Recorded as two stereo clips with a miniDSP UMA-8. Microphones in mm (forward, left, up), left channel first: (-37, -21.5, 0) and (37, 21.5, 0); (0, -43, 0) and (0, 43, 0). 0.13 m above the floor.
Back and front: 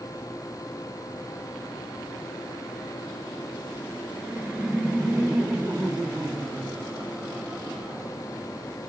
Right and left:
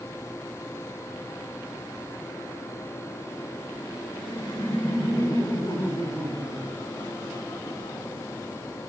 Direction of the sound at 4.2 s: 50° right.